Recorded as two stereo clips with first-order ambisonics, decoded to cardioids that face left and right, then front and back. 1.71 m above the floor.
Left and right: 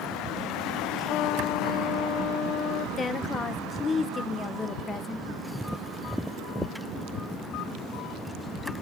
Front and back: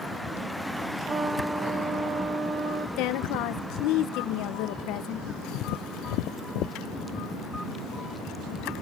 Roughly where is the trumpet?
Behind left.